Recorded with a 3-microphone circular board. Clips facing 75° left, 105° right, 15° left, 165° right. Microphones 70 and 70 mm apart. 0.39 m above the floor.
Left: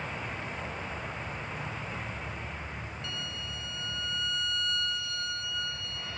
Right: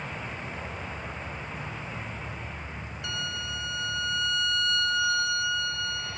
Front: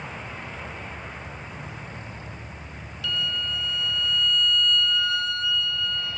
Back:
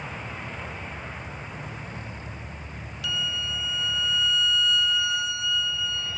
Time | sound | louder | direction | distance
3.0 | a violin | right 5 dB, front 2 dB | 85° right | 0.6 m